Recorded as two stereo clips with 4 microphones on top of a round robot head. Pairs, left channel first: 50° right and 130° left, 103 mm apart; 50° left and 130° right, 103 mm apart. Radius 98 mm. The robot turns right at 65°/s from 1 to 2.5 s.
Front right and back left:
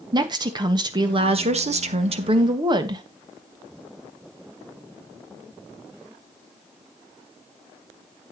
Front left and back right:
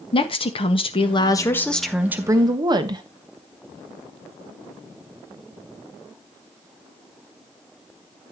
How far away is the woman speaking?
About 1.6 m.